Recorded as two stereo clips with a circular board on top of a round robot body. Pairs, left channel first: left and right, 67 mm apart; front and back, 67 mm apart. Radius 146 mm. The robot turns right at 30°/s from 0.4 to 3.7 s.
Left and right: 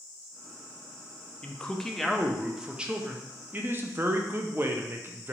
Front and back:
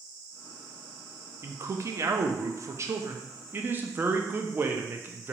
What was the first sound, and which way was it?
A man speaking, 160° left.